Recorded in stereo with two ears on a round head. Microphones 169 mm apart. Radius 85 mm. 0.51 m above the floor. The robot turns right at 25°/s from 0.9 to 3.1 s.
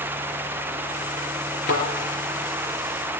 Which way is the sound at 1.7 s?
55° left (ahead or behind).